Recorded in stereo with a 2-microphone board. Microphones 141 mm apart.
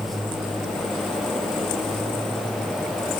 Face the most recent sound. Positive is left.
No sound to turn to.